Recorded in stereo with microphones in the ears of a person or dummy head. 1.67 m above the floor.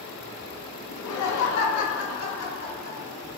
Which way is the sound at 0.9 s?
65° left (ahead or behind).